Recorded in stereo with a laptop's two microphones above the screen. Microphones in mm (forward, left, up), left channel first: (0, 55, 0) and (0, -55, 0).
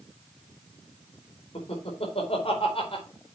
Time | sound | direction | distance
1.6 | laughter | 65° left (ahead or behind) | 4.5 m